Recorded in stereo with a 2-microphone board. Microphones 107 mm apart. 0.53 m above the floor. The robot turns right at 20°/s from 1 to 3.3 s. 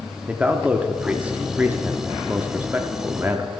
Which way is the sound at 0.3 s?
15° right (ahead or behind).